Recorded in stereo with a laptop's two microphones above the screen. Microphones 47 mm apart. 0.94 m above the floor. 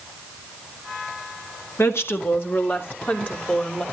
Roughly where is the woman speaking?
Left.